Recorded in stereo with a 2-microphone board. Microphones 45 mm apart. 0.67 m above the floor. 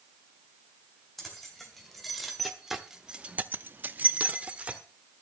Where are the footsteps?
I don't hear footsteps.